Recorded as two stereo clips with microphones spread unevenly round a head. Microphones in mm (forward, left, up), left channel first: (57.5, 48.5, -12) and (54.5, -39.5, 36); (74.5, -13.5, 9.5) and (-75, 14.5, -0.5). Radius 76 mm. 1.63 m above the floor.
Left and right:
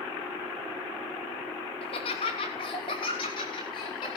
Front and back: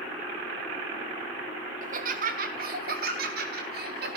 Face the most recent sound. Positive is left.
turn(degrees=140)